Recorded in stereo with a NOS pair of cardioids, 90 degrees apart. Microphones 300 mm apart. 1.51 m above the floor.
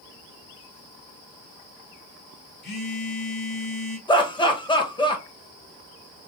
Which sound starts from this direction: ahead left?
A phone buzzing, at 2.6 s.